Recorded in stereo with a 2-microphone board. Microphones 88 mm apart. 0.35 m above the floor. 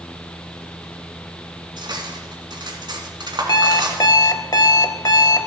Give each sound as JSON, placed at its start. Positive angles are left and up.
{"t": 1.8, "sound": "cutlery clinking", "side_deg": -60, "distance_m": 2.0}
{"t": 3.5, "sound": "an alarm clock", "side_deg": 55, "distance_m": 0.7}